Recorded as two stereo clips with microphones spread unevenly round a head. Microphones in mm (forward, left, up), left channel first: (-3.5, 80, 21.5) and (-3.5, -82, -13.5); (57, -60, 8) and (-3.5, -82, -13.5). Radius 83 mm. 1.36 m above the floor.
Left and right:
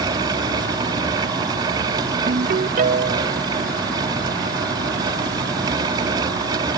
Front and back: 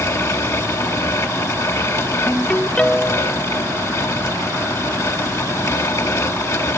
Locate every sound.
0.0 s a fan: 20° right
2.3 s a ringtone: 45° right